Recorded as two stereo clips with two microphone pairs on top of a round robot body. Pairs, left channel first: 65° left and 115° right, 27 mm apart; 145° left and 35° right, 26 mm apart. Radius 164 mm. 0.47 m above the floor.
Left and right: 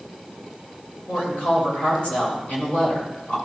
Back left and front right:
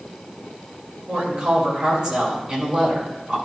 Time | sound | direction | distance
1.1 | a woman speaking | 25° left | 3.5 m